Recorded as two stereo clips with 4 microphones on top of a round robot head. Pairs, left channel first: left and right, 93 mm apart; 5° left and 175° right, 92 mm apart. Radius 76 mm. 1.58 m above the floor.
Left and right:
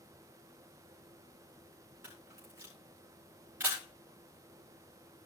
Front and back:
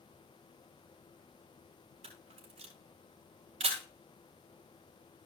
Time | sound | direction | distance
2.0 | a camera shutter | 160° right | 3.5 m